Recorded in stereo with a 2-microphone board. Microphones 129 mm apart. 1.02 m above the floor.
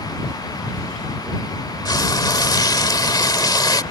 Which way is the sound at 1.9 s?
30° left (ahead or behind).